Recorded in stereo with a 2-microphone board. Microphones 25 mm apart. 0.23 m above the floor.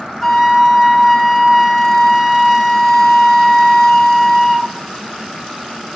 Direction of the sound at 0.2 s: 5° right (ahead or behind).